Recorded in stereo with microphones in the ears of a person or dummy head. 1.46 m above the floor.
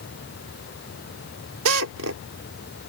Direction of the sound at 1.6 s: 85° right.